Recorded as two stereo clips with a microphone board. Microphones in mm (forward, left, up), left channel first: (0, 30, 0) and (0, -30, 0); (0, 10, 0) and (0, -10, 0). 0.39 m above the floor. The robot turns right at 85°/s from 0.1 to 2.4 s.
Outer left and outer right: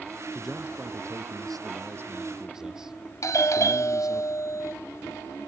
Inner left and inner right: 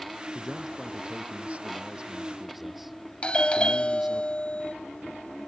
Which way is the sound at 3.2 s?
60° left (ahead or behind).